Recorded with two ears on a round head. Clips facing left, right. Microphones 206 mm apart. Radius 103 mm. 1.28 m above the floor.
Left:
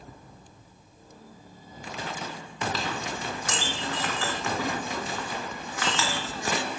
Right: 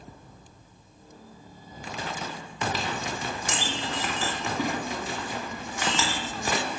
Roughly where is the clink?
Centre.